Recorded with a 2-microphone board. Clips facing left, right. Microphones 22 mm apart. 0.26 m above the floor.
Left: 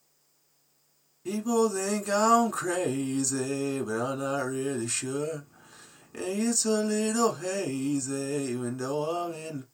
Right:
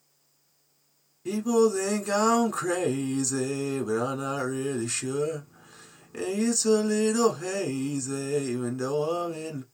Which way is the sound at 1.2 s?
5° right (ahead or behind).